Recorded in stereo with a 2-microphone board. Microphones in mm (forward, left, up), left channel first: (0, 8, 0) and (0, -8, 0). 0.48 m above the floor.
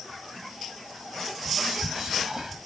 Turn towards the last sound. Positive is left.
turn(degrees=-40)  # may be behind; listen again after turning